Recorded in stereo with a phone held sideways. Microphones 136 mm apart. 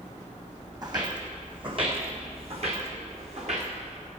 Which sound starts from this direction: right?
Footsteps, at 0.8 s.